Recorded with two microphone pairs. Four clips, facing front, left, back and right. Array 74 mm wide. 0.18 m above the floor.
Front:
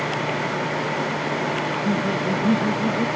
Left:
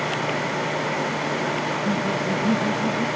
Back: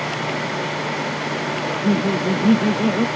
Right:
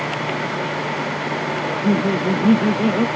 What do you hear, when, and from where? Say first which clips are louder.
1.6 s laughter: right 5 dB, back 3 dB; 125° right